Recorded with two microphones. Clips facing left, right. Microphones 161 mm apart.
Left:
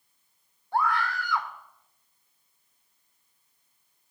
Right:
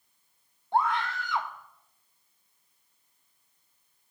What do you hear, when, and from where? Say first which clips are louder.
0.7 s a scream: even; 25° right (ahead or behind), 1.1 m